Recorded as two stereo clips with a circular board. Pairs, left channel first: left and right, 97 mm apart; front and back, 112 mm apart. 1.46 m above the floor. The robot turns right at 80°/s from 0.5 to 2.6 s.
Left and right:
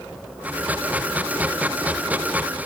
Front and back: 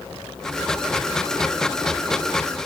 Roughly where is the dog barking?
No dog barking in this recording.